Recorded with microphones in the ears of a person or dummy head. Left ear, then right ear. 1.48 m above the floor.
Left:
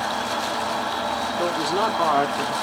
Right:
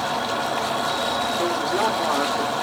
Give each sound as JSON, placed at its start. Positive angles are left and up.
{"t": 0.0, "sound": "an insect", "side_deg": 60, "distance_m": 1.3}
{"t": 1.4, "sound": "a man speaking", "side_deg": 70, "distance_m": 0.7}